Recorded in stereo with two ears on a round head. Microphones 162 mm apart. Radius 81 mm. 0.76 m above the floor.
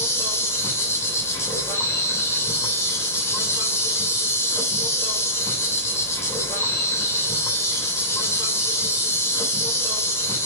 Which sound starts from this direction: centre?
An insect, at 0.0 s.